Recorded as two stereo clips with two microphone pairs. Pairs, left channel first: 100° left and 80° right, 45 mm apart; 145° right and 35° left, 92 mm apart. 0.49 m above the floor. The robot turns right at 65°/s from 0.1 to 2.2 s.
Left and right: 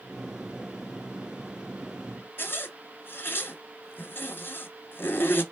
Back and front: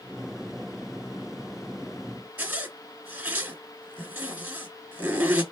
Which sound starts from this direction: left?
A zipper, at 2.4 s.